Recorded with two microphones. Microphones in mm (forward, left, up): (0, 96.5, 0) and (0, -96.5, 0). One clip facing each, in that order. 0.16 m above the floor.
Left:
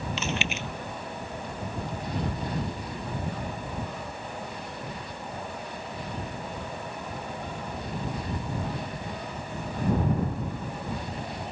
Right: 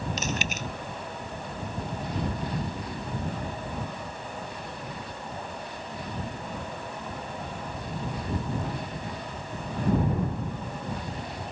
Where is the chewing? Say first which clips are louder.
Even; 40° right (ahead or behind).